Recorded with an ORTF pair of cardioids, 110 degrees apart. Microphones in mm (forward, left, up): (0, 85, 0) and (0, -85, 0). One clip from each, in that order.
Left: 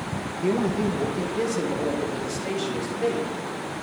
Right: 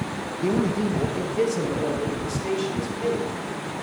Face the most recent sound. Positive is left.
turn(degrees=0)